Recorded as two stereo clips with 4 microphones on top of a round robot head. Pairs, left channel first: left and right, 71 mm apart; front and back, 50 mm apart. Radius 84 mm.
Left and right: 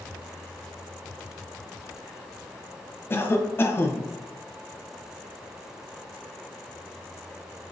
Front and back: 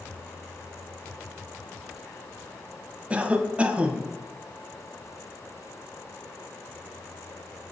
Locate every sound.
3.1 s a cough: 125° left, 0.6 m